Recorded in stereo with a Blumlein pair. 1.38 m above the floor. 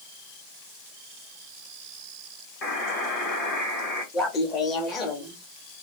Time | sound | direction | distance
2.6 | a buzzer | 35° left | 1.5 m
4.1 | laughter | 20° left | 1.1 m